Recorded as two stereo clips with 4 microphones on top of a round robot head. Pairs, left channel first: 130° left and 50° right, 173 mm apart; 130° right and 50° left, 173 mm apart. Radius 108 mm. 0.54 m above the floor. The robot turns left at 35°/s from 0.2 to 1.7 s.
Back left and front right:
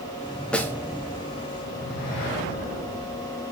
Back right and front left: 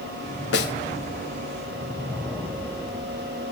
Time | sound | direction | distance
0.5 | a snare drum | 145° right | 1.1 m